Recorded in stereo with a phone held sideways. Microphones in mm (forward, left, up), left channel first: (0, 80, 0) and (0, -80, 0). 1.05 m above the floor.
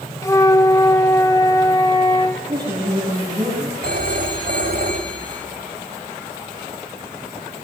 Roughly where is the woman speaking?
Right.